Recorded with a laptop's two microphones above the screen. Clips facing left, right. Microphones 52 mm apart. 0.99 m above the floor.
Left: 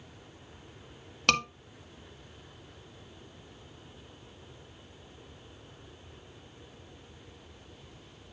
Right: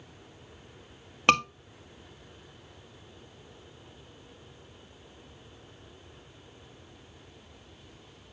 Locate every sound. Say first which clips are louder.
1.3 s a scream: right 4 dB; 20° right (ahead or behind), 1.7 m